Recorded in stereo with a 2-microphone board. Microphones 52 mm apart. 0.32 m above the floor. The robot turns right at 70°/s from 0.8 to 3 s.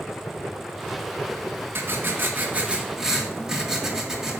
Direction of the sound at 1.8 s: 100° right.